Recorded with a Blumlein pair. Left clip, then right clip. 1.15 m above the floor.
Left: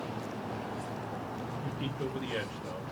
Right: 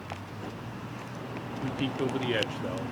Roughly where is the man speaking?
Ahead right.